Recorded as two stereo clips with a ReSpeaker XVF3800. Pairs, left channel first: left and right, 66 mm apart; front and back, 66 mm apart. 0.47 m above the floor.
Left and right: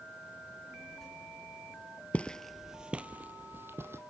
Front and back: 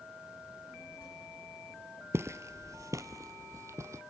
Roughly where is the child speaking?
Ahead.